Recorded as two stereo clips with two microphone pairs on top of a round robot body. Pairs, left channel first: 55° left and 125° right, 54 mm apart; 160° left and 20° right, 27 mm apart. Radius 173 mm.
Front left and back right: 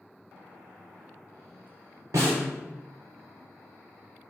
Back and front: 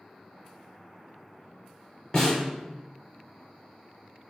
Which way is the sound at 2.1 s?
115° right.